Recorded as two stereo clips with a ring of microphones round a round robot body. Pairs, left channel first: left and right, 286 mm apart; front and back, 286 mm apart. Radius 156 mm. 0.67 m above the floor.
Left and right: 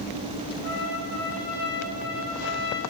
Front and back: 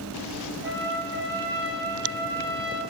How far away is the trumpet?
About 6 m.